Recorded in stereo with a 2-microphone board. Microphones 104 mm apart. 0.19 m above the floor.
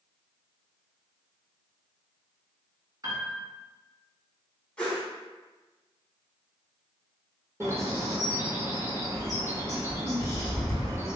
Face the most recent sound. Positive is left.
turn(degrees=-25)  # may be behind; listen again after turning